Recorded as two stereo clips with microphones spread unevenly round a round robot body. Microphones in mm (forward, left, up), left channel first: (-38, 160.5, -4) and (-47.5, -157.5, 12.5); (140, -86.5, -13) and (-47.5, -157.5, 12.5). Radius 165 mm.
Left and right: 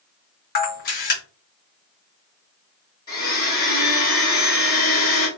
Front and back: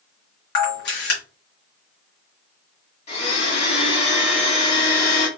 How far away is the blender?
About 1.7 m.